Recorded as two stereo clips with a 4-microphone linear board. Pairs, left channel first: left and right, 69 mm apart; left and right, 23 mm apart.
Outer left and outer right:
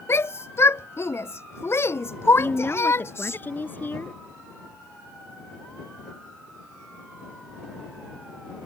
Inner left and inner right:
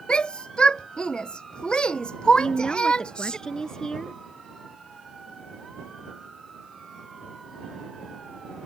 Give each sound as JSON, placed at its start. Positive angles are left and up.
{"t": 0.1, "sound": "a shout", "side_deg": 35}
{"t": 2.4, "sound": "a woman speaking", "side_deg": 30}